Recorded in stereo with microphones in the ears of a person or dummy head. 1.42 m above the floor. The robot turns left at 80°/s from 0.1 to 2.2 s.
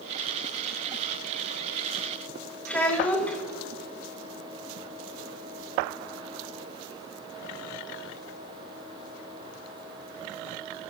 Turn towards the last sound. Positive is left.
turn(degrees=10)  # may be behind; listen again after turning